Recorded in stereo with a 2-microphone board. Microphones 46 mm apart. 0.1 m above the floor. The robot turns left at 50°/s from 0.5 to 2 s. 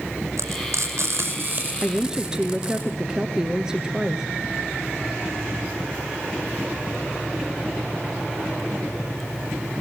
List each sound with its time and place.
0.4 s frying: 80° right, 5.5 m; by 2.8 s 25° right (ahead or behind), 5.5 m
1.8 s a woman speaking: 20° right (ahead or behind), 1.4 m; by 4.2 s 15° right (ahead or behind), 1.4 m